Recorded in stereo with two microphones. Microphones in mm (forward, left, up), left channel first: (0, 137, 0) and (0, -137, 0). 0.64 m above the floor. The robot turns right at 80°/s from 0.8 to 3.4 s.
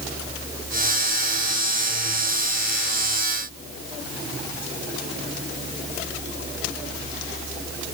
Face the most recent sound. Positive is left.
No sound to turn to.